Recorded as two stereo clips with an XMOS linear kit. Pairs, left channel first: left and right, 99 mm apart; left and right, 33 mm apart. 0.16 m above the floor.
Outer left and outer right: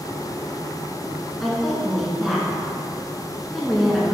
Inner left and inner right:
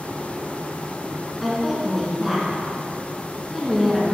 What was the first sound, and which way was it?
A woman speaking, centre (ahead or behind).